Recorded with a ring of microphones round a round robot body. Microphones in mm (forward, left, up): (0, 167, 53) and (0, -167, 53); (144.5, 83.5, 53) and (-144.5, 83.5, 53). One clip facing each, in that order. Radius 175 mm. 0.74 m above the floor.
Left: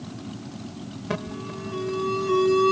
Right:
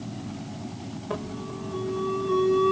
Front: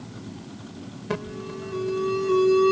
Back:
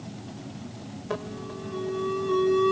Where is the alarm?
50° left.